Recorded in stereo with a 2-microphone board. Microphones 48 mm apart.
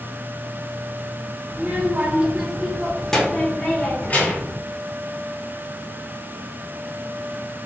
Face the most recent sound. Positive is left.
turn(degrees=40)  # may be behind; listen again after turning